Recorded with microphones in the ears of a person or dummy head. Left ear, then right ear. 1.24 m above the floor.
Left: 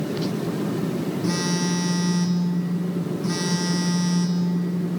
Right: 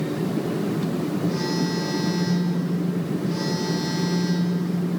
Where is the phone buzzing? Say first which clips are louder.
Left 2 dB; 35° left (ahead or behind), 1.1 m.